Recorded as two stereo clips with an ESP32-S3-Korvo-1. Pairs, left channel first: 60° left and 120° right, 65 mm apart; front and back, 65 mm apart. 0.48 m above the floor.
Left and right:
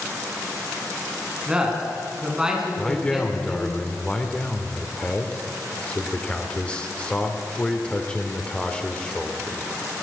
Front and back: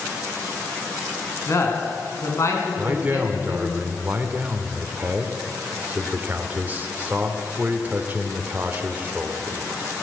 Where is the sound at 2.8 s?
125° left, 1.8 m.